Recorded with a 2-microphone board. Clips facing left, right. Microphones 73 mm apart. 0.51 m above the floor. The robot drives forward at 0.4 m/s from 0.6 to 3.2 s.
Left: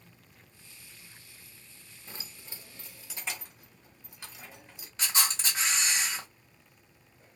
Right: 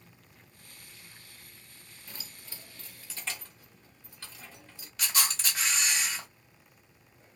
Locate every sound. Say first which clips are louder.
2.1 s keys jangling: left 2 dB; 30° left (ahead or behind), 0.5 m; by 4.9 s 15° left (ahead or behind), 0.9 m
5.0 s a camera shutter: left 1 dB; 30° left (ahead or behind), 1.2 m